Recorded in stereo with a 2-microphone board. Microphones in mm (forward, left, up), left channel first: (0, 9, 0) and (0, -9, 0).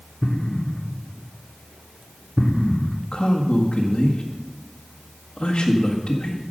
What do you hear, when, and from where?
0.2 s an explosion: 25° left (ahead or behind), 0.7 m
3.1 s a man speaking: 75° left (ahead or behind), 1.7 m